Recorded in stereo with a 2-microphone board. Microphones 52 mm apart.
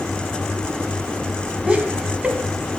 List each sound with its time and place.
1.7 s laughter: 20° right (ahead or behind), 1.2 m